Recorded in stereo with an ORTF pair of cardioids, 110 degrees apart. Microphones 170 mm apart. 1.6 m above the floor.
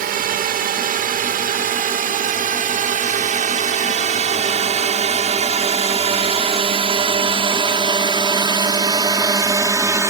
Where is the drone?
60° right; by 10.1 s 15° right.